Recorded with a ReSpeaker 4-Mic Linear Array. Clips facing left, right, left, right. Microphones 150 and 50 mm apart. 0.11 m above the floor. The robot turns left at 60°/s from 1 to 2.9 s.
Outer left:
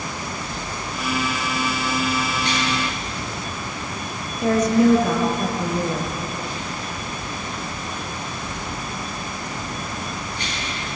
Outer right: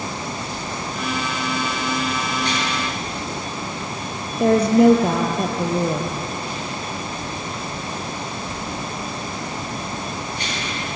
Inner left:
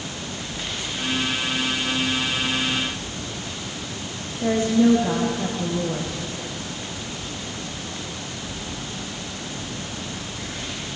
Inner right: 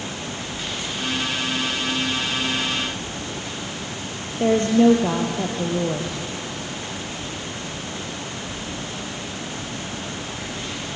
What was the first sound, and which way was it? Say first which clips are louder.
A woman speaking: outer right 3 dB, inner right 3 dB; 60° right (ahead or behind).